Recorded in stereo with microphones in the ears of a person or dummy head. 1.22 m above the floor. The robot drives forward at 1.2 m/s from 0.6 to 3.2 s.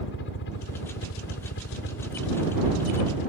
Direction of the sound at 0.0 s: 55° left (ahead or behind).